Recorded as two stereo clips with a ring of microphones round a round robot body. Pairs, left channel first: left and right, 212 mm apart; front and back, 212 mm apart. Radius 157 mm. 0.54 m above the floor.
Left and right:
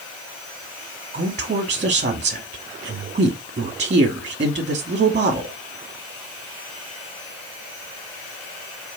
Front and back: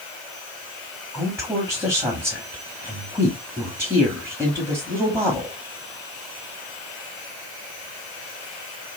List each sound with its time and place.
1.1 s a woman speaking: 110° right, 1.1 m